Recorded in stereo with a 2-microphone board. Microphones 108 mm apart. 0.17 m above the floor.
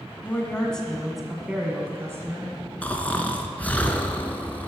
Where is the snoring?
15° left (ahead or behind), 0.8 m.